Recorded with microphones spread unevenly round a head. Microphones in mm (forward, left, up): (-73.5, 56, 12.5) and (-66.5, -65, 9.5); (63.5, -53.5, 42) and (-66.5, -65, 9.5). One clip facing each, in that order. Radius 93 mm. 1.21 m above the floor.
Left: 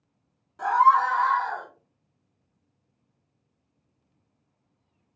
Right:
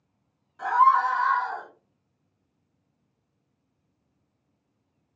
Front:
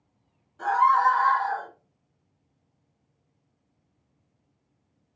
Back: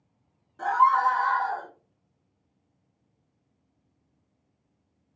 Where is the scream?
145° left, 1.7 m; by 1.7 s 125° left, 1.4 m.